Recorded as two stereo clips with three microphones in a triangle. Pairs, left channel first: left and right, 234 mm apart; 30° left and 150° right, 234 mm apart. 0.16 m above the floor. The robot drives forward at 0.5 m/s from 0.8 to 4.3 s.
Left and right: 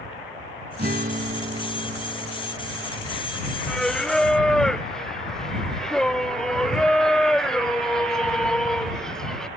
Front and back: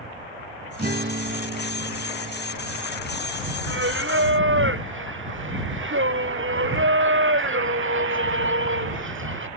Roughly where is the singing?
Behind.